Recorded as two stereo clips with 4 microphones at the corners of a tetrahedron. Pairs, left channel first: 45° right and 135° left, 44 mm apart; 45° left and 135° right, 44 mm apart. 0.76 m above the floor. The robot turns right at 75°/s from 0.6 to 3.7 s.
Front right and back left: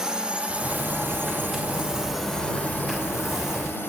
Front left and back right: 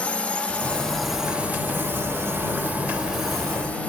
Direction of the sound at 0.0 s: 75° left.